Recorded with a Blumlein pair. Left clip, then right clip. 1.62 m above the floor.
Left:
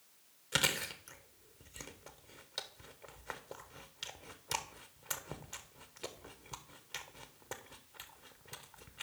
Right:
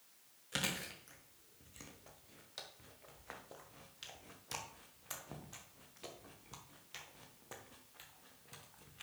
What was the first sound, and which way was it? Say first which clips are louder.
Chewing: left 7 dB; 20° left.